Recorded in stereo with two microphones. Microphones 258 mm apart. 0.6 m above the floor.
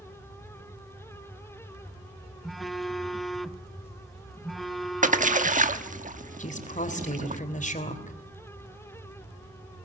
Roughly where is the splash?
Right.